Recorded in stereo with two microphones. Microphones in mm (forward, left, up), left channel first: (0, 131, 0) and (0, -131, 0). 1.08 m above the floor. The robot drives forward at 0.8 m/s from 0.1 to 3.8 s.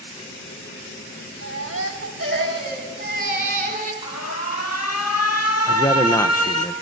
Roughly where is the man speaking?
Centre.